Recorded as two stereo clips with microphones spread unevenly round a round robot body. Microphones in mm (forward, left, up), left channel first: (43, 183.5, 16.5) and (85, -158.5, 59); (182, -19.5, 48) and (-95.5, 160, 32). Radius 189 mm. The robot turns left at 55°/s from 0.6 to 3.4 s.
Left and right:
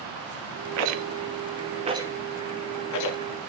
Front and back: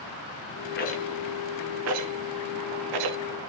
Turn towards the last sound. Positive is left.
turn(degrees=120)